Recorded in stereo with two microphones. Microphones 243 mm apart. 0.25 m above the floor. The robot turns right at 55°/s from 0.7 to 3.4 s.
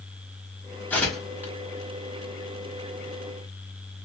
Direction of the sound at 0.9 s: 10° left (ahead or behind).